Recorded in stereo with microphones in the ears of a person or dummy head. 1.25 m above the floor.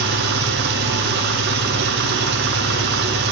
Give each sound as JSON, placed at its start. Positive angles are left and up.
{"t": 0.0, "sound": "an engine running", "side_deg": -55, "distance_m": 0.8}